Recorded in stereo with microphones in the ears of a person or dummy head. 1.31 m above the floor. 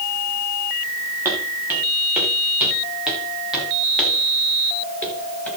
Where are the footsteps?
10° right (ahead or behind), 7 m; by 5.5 s 10° left (ahead or behind), 8 m.